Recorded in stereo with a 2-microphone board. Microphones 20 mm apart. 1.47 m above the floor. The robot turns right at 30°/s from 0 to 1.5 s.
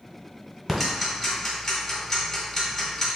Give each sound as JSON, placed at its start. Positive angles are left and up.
{"t": 0.7, "sound": "ticking", "side_deg": 5, "distance_m": 1.6}